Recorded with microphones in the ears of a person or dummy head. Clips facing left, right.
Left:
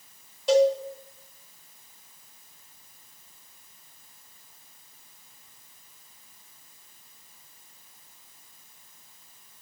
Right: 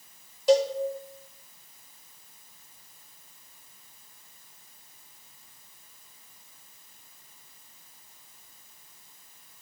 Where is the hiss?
I don't hear a hiss.